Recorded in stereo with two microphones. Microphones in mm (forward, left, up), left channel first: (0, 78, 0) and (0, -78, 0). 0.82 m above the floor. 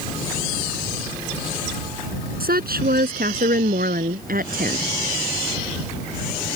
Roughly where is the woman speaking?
Right.